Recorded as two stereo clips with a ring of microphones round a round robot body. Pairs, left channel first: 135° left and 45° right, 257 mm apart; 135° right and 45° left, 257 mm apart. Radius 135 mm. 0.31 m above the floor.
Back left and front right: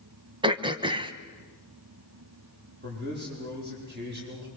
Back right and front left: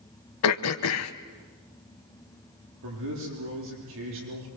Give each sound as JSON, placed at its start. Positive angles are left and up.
{"t": 0.4, "sound": "throat clearing", "azimuth_deg": -115, "distance_m": 1.2}
{"t": 2.8, "sound": "a man speaking", "azimuth_deg": 5, "distance_m": 9.5}